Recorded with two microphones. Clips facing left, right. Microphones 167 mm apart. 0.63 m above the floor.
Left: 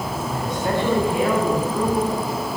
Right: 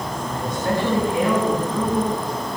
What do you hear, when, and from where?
0.3 s a man speaking: 25° left (ahead or behind), 4 m